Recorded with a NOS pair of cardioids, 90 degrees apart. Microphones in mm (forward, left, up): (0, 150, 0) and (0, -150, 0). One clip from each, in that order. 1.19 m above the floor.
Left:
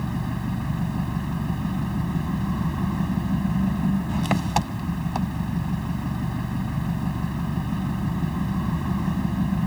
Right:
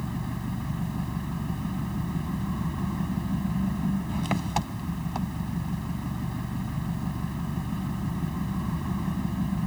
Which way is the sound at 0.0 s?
35° left.